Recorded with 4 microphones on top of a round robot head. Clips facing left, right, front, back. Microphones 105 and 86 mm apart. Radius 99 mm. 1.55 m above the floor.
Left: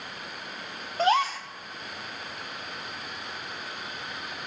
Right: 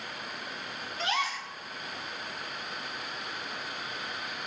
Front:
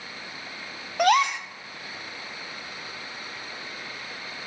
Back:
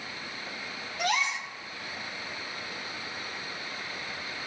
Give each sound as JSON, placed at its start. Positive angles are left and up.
{"t": 1.0, "sound": "a gasp", "azimuth_deg": 30, "distance_m": 0.5}